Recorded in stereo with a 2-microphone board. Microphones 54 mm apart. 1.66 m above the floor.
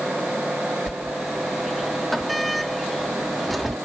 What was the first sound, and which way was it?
A sliding door, 5° left (ahead or behind).